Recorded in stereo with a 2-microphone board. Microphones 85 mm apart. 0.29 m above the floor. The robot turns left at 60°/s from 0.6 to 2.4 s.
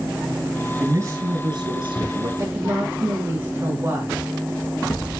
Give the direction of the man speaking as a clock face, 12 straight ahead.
1 o'clock.